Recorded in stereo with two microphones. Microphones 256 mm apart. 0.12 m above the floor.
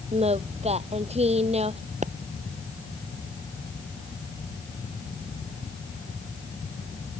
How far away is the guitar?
I don't hear a guitar.